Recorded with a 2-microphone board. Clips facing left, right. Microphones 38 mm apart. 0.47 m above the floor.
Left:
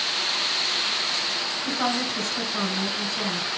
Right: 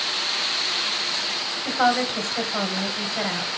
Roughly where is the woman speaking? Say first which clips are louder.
Right 7 dB; right.